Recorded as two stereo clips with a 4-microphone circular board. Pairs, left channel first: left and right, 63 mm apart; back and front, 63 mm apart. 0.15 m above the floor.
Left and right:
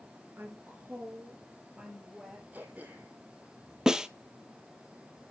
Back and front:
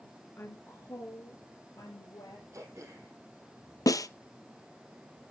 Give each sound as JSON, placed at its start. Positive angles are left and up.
{"t": 0.4, "sound": "a woman speaking", "azimuth_deg": -135, "distance_m": 3.0}
{"t": 2.5, "sound": "throat clearing", "azimuth_deg": -30, "distance_m": 3.0}
{"t": 3.9, "sound": "a snare drum", "azimuth_deg": -170, "distance_m": 0.6}